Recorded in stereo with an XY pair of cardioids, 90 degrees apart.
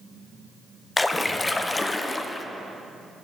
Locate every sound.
1.0 s a splash: 25° left, 0.6 m